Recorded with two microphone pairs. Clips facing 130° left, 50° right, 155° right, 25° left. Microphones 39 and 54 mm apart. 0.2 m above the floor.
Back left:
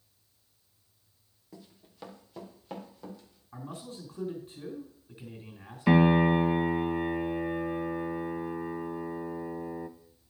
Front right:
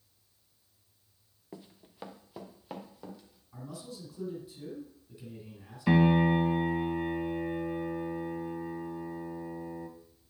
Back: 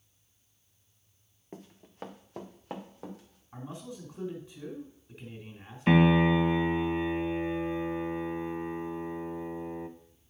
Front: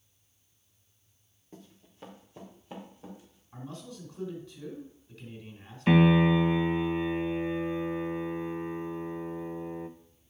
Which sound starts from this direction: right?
Running footsteps, at 1.5 s.